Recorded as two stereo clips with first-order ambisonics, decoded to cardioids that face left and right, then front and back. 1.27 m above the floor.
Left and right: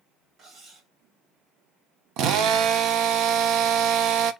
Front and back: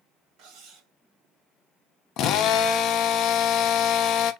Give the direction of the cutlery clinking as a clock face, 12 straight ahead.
5 o'clock.